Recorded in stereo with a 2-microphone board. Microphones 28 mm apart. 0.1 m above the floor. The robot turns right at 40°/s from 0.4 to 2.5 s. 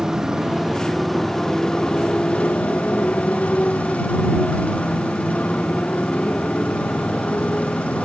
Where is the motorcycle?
20° right; by 8.1 s 60° left.